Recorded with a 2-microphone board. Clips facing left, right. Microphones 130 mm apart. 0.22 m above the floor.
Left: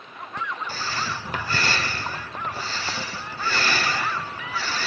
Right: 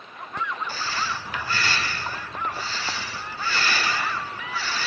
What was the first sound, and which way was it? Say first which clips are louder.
Breathing: even; 40° left (ahead or behind).